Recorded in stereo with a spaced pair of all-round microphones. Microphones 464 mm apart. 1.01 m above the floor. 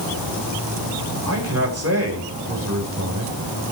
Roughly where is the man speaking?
Right.